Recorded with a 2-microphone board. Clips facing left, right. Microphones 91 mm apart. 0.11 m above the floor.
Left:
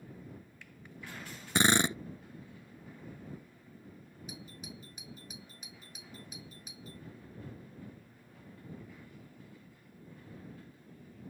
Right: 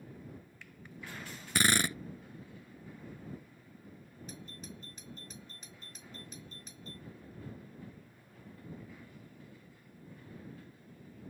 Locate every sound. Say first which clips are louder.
1.6 s a drill: left 3 dB; 25° left (ahead or behind)
4.3 s a doorbell: even; 10° left (ahead or behind)